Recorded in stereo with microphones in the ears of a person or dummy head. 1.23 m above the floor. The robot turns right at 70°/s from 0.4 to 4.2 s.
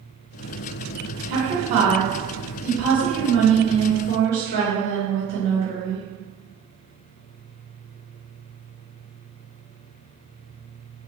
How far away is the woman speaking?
About 1.9 m.